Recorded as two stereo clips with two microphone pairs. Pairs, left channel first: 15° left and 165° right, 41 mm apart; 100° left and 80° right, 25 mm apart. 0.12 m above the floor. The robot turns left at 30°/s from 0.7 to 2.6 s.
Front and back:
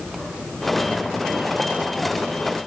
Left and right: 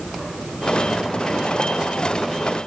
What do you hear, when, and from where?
Only background noise.